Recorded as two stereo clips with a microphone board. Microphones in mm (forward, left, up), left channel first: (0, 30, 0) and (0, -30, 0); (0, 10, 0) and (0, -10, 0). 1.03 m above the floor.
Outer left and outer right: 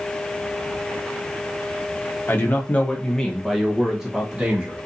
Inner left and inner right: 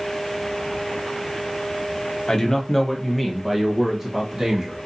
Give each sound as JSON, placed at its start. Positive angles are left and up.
{"t": 2.3, "sound": "a man speaking", "side_deg": 40, "distance_m": 0.9}